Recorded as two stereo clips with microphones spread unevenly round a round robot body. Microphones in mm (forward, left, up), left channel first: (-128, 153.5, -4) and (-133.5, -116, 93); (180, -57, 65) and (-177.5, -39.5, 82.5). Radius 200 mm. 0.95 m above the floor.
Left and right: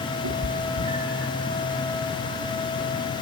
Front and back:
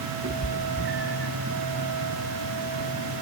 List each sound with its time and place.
0.2 s a cat meowing: 130° right, 1.4 m; by 1.3 s 120° right, 3 m